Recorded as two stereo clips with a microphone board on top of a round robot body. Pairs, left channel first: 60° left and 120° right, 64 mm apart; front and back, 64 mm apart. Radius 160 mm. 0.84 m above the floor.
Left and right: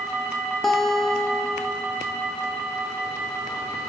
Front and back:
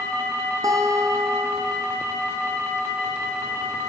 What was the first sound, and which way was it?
A guitar, 145° left.